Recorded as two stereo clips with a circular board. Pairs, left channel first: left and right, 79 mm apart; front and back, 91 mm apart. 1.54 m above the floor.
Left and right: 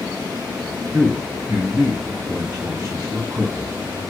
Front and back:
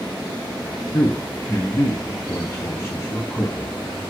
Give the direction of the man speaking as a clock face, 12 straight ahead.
2 o'clock.